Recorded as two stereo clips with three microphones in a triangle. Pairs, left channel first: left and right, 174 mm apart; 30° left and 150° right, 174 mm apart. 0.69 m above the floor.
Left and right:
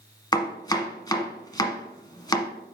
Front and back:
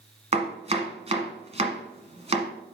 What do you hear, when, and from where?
0.3 s chopping: 160° left, 1.3 m